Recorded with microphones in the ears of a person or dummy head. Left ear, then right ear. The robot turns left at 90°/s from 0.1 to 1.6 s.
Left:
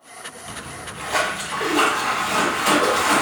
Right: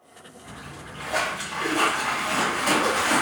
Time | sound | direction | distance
0.4 | a splash | 150° left | 2.5 m